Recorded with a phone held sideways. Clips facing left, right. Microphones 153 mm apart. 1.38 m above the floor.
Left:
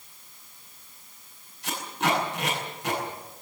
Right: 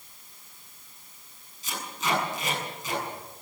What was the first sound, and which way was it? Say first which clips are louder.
Tape being pulled: left 4 dB; 65° left (ahead or behind).